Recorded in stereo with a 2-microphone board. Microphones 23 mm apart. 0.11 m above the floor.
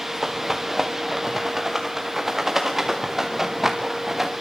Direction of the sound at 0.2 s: 15° right (ahead or behind).